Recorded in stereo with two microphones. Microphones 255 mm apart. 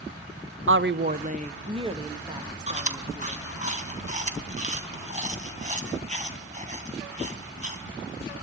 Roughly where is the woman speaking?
Right.